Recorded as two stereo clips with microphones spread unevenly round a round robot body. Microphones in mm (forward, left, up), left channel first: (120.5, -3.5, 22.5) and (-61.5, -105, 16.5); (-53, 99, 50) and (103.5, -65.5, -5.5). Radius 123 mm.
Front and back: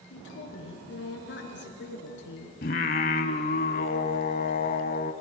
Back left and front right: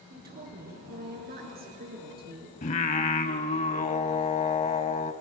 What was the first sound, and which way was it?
A woman speaking, straight ahead.